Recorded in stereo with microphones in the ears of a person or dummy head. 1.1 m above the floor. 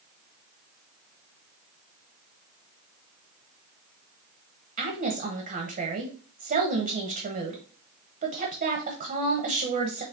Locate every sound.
4.8 s a woman speaking: 45° right (ahead or behind), 0.9 m